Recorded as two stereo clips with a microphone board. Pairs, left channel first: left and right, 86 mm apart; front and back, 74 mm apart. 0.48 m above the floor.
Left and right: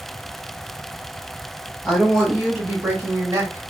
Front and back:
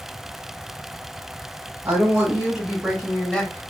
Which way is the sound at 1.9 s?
165° left.